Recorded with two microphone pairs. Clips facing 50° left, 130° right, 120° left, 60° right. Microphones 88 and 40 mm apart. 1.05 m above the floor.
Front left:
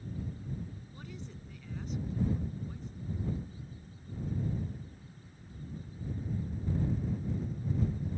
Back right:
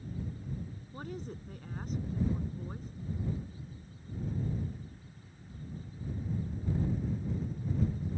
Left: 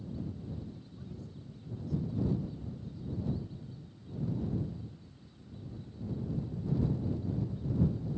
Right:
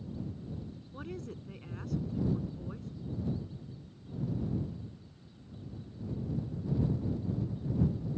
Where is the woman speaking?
80° right.